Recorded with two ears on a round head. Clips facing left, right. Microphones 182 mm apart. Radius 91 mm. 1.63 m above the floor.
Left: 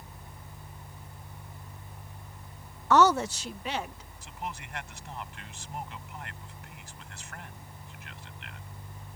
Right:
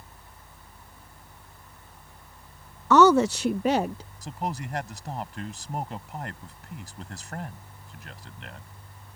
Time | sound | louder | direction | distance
2.9 | a woman speaking | right 5 dB | 85° right | ?
4.2 | a man speaking | right 7 dB | 35° right (ahead or behind) | ?